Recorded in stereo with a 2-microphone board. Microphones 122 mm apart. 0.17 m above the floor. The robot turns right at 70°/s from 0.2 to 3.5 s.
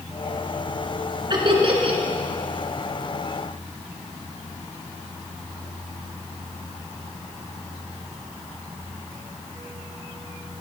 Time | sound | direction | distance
1.3 | laughter | 35° right (ahead or behind) | 2 m